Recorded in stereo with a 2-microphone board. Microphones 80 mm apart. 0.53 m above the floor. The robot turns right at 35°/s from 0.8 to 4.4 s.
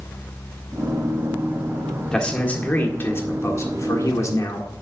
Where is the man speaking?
15° left, 1.5 m; by 4.7 s 95° left, 1.5 m.